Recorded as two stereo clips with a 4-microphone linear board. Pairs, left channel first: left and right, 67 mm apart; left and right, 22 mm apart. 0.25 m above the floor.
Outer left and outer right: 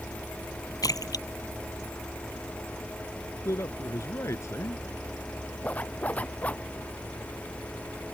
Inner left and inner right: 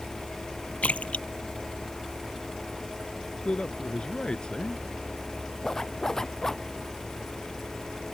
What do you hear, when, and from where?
0.8 s a splash: 75° left (ahead or behind)
3.5 s a man speaking: 45° left (ahead or behind)
5.6 s a zipper: 20° left (ahead or behind)